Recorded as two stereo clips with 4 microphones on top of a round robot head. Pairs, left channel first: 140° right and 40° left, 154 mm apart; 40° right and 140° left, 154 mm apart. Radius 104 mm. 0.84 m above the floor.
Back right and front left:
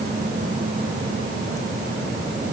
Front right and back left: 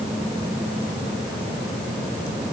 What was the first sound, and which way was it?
Only background noise.